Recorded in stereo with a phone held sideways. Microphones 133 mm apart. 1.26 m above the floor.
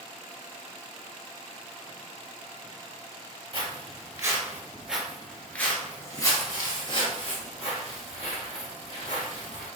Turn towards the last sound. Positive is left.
turn(degrees=60)  # may be behind; listen again after turning